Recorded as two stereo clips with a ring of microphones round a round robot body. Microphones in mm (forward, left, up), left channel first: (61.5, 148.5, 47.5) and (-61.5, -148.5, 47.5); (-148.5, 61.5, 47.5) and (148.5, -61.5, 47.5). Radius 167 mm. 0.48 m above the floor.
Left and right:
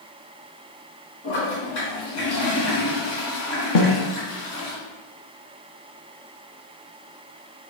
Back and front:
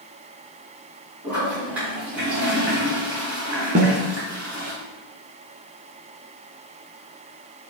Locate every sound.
1.2 s a toilet flushing: 65° left, 3 m
3.8 s a snare drum: 45° left, 1.1 m